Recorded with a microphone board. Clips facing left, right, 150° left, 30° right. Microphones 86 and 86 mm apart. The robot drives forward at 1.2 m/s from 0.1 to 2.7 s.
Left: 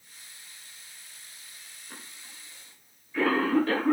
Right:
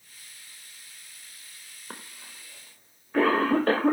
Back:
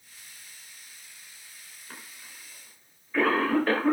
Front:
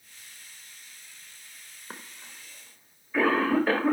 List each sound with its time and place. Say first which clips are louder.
1.9 s a cough: right 5 dB, front 3 dB; 80° right, 1.7 m; by 3.9 s 115° right, 1.8 m